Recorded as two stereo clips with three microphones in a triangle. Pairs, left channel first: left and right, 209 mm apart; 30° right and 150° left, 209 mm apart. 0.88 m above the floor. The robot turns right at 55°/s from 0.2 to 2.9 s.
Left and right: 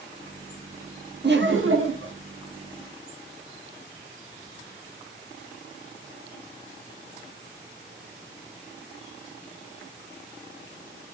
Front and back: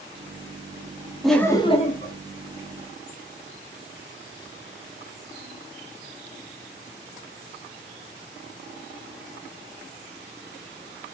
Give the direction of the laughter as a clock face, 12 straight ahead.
4 o'clock.